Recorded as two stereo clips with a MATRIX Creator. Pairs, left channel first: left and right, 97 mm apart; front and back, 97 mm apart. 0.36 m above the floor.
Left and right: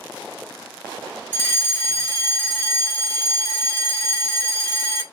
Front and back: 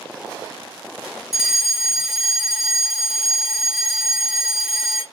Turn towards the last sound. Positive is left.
turn(degrees=100)